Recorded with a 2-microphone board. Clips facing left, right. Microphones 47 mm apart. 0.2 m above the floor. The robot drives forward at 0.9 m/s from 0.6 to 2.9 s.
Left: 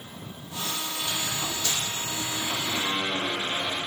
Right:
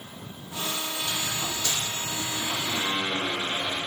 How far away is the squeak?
About 3 m.